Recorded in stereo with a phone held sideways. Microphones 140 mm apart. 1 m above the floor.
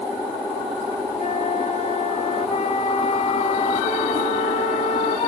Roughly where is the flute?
Left.